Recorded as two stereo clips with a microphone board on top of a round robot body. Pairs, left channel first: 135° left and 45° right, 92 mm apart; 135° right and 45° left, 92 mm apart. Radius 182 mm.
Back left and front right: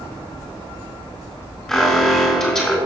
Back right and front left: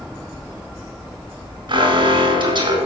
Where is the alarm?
55° left, 3.5 m.